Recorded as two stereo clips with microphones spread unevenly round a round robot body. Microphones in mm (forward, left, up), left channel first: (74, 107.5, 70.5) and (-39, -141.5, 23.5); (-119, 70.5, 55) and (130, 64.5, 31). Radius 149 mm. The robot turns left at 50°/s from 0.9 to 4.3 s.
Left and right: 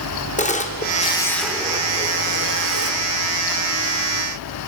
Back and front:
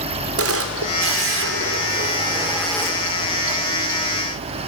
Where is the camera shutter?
Straight ahead, 1.5 m; by 3.0 s 105° right, 1.5 m.